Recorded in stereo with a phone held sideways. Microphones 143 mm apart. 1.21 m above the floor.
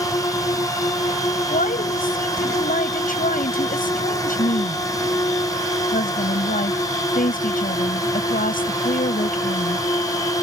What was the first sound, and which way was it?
A drone, 25° left (ahead or behind).